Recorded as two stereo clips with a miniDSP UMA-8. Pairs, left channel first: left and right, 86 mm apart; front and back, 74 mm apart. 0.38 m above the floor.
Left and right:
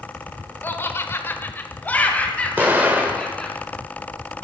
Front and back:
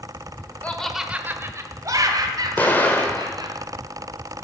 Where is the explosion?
40° right, 1.6 m.